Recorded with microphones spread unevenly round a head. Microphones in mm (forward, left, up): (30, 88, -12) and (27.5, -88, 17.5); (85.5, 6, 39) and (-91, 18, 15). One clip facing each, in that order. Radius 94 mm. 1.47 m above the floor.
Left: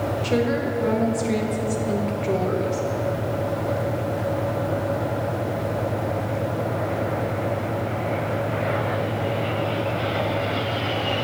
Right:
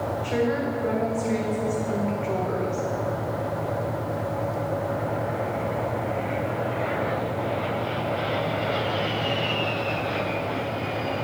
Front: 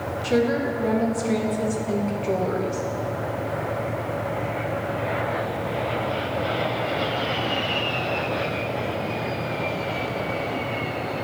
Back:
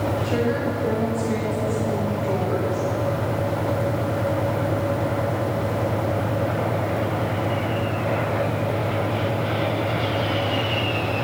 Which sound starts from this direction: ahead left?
A woman speaking, at 0.2 s.